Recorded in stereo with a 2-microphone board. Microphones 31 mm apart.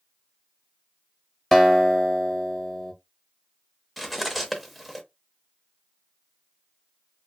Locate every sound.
1.5 s a guitar: 10° left (ahead or behind), 0.6 m
4.0 s cutlery clinking: 5° right (ahead or behind), 0.6 m